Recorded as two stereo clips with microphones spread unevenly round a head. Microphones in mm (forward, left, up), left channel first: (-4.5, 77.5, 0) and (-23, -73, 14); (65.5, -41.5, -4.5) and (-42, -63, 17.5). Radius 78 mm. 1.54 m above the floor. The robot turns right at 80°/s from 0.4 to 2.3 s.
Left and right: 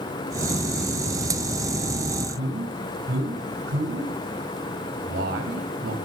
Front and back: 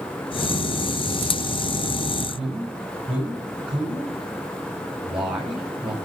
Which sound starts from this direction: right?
A man speaking, at 2.3 s.